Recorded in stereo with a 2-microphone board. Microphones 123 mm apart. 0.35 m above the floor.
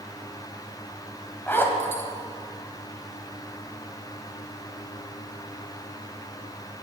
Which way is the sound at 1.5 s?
15° left (ahead or behind).